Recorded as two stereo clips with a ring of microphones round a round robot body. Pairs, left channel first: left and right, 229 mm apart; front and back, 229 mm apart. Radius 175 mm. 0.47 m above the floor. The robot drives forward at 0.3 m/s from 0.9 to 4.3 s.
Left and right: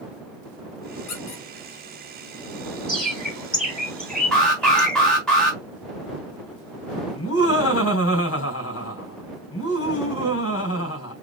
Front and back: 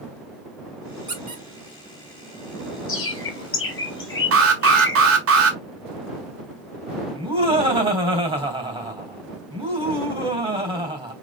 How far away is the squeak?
About 2.5 m.